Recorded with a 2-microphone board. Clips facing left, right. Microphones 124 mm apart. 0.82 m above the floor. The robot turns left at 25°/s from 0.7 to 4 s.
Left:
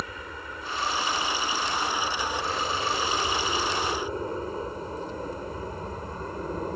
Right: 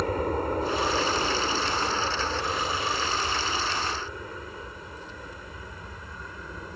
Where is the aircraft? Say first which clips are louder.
Right 12 dB; 50° right (ahead or behind); by 6.8 s 45° left (ahead or behind).